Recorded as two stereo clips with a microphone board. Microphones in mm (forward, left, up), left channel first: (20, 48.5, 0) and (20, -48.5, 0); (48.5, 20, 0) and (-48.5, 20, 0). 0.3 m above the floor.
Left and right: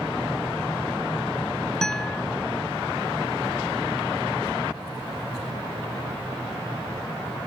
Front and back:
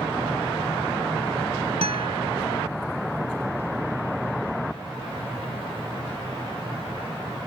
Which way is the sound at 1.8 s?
175° left.